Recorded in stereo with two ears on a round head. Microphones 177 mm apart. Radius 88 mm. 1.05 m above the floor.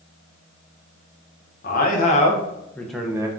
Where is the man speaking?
45° left (ahead or behind), 1.0 m; by 3.3 s 20° right (ahead or behind), 0.7 m.